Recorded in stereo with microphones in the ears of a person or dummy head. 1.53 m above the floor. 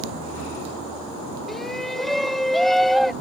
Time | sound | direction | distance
1.5 | a shout | centre (ahead or behind) | ?